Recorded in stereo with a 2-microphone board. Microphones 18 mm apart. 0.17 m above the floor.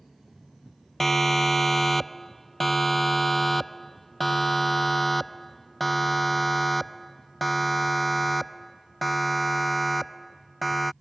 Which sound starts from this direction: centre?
A siren, at 1.0 s.